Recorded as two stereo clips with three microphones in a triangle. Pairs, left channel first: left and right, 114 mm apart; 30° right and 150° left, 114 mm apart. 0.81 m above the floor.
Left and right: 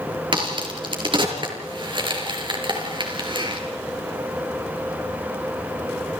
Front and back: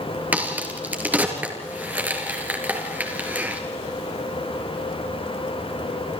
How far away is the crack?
About 5 m.